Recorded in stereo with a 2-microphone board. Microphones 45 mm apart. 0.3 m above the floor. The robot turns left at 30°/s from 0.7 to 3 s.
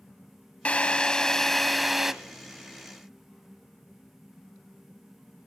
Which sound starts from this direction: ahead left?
A drill, at 0.7 s.